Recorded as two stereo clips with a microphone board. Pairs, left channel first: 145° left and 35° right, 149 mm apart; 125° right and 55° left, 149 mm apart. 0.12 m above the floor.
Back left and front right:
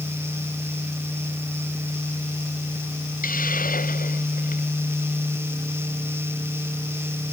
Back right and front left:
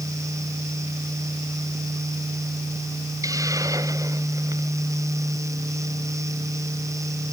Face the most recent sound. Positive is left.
turn(degrees=125)